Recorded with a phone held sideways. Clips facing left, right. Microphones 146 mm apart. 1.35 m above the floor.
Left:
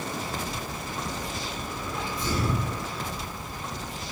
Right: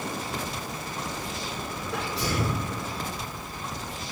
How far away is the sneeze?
About 6.5 m.